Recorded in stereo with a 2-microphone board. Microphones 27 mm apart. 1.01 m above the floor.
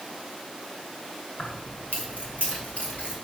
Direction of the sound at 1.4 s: 60° left (ahead or behind).